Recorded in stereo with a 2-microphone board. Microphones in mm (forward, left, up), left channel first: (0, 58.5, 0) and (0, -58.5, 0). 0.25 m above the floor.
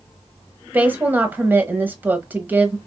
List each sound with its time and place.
0.7 s a woman speaking: 15° right (ahead or behind), 1.0 m